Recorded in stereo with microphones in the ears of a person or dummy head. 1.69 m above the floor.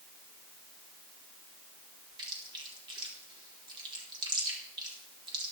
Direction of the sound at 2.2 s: 25° right (ahead or behind).